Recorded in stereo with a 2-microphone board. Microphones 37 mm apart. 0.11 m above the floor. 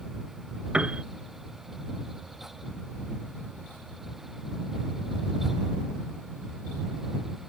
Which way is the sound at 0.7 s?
30° right (ahead or behind).